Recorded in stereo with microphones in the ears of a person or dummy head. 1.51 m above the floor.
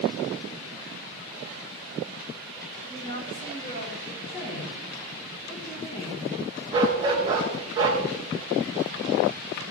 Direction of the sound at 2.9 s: 25° left (ahead or behind).